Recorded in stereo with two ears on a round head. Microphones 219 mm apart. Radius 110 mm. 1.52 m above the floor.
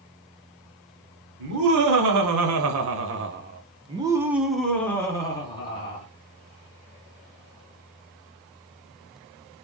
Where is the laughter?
85° right, 1.4 m; by 6.0 s 25° left (ahead or behind), 1.6 m.